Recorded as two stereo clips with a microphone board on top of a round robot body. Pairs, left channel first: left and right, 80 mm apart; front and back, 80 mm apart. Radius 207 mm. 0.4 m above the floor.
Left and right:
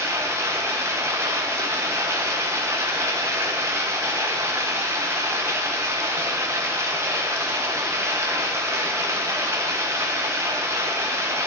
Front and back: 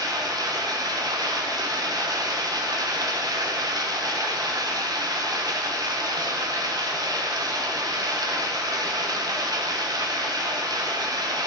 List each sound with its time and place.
0.0 s running water: 145° right, 1.3 m